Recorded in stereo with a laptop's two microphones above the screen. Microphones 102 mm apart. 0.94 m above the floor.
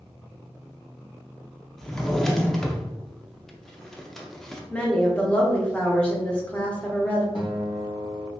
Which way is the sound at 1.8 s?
5° left (ahead or behind).